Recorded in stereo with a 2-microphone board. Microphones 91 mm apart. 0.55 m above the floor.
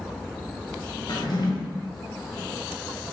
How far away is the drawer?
About 1.9 m.